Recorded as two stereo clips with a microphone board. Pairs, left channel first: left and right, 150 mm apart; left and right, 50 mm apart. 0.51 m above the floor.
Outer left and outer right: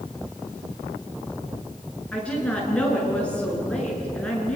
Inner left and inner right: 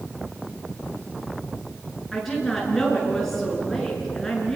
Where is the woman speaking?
10° left (ahead or behind), 6.5 m.